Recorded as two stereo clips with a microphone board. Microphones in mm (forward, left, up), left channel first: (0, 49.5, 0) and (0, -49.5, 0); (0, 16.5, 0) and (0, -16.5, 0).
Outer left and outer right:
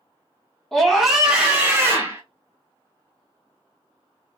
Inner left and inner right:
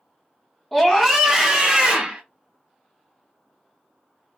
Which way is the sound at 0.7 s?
5° left (ahead or behind).